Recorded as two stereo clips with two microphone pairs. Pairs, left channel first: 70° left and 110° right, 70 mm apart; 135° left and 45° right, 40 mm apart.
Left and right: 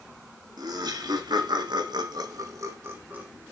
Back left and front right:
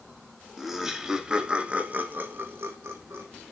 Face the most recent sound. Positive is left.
turn(degrees=-40)